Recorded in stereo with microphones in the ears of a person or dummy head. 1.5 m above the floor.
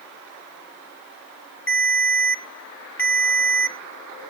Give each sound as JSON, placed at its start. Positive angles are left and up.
{"t": 1.7, "sound": "a ringtone", "side_deg": 10, "distance_m": 0.8}